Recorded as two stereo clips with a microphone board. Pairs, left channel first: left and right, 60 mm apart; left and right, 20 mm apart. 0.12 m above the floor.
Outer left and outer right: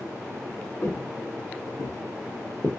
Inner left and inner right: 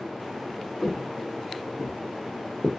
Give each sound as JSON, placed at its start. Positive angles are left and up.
{"t": 0.8, "sound": "footsteps", "side_deg": 40, "distance_m": 0.8}